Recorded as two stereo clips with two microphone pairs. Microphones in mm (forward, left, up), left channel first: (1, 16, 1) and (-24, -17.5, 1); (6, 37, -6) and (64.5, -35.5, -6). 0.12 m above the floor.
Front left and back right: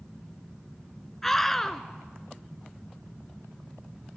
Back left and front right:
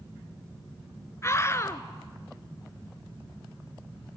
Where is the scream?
130° left, 1.2 m.